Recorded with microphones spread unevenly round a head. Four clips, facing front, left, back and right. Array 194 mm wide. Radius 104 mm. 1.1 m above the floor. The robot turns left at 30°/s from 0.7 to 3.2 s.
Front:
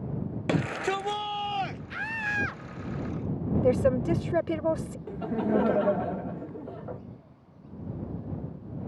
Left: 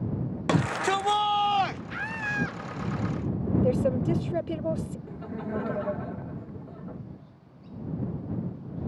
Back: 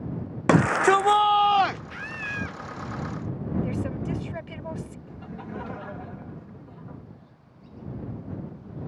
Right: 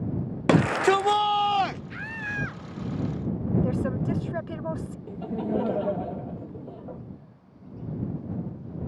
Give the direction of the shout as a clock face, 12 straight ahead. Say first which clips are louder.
Right 6 dB, back 10 dB; 5 o'clock.